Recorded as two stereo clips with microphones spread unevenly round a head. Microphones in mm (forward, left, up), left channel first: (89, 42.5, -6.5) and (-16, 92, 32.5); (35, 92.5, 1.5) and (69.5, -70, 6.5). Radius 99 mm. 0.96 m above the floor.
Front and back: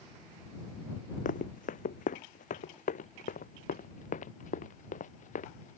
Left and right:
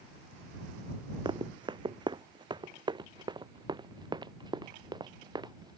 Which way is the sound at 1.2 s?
15° right.